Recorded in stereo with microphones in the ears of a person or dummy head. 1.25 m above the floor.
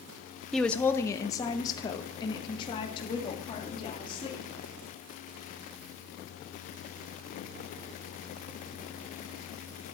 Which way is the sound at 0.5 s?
5° left (ahead or behind).